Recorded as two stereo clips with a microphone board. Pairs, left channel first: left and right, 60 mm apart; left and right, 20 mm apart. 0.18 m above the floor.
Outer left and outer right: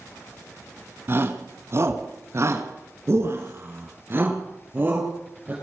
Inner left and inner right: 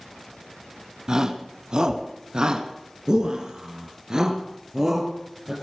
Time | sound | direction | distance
1.1 | a shout | 40° right (ahead or behind) | 1.6 m